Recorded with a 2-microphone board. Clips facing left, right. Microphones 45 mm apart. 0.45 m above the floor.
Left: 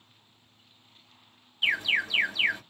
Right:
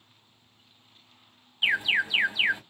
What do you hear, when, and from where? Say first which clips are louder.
1.6 s an alarm: right 2 dB; 15° right (ahead or behind), 1.5 m